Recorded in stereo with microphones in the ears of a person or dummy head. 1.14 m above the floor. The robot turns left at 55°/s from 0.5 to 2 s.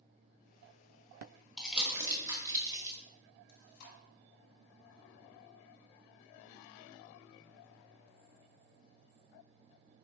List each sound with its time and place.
1.6 s crumpling: 5° left (ahead or behind), 1.1 m; by 3.0 s 15° right (ahead or behind), 1.1 m
3.5 s chewing: 70° left (ahead or behind), 1.4 m